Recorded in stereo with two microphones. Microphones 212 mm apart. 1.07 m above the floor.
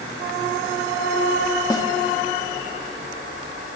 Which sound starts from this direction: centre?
A snare drum, at 1.7 s.